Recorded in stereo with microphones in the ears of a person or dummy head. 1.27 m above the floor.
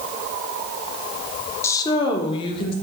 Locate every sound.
1.6 s a woman speaking: 25° left (ahead or behind), 0.9 m; by 2.7 s 35° left (ahead or behind), 1.6 m